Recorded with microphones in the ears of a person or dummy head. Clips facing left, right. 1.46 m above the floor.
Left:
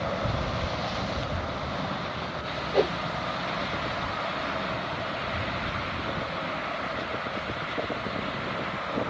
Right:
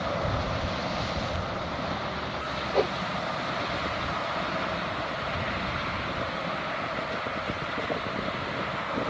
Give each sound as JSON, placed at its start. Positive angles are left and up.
{"t": 2.7, "sound": "a whoosh", "side_deg": 10}